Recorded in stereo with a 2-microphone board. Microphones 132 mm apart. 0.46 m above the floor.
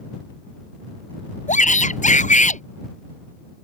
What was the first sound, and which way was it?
A shout, 65° left (ahead or behind).